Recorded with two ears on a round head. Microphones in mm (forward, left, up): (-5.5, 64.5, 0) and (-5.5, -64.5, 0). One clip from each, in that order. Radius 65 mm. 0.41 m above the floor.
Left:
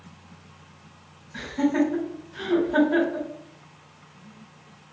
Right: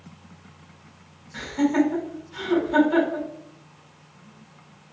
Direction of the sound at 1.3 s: 60° right (ahead or behind).